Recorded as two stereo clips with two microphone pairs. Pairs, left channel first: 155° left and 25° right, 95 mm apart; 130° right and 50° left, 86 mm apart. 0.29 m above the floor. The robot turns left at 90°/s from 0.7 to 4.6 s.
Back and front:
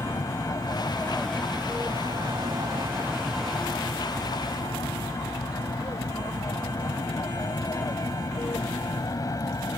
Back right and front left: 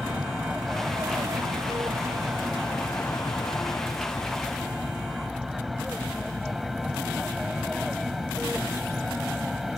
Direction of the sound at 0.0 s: 130° left.